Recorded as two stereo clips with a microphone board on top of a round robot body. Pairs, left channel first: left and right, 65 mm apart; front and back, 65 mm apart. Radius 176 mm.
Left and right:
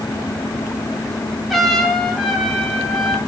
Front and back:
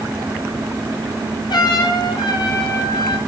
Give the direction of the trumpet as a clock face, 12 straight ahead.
12 o'clock.